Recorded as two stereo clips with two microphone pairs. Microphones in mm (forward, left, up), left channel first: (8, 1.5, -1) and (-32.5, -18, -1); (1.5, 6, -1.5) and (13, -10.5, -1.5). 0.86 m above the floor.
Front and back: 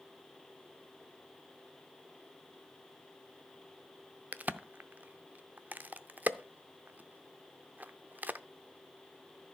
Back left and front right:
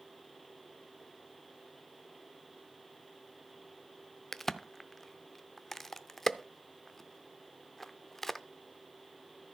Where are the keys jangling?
No keys jangling in this recording.